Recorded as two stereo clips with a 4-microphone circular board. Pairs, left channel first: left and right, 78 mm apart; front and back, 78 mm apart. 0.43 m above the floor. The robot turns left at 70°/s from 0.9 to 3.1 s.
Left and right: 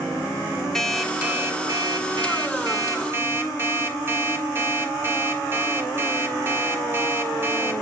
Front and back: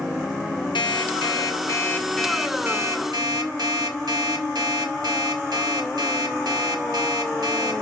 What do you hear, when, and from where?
0.8 s an alarm clock: 5° left, 1.7 m; by 7.8 s 150° right, 1.7 m